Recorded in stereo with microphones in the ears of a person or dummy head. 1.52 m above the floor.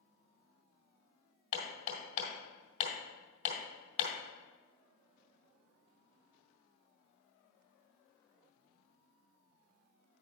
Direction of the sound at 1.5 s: 45° left (ahead or behind).